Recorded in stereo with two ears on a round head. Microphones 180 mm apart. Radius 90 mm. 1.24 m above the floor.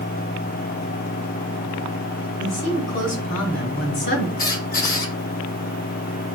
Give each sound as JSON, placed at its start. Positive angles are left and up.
{"t": 2.4, "sound": "a woman speaking", "side_deg": 65, "distance_m": 4.0}
{"t": 4.4, "sound": "a squeak", "side_deg": 45, "distance_m": 1.6}